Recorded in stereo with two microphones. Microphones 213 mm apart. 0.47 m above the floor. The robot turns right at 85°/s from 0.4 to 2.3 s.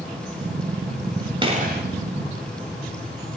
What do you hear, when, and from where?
1.4 s a gunshot: 155° right, 2 m; by 1.8 s 120° right, 2 m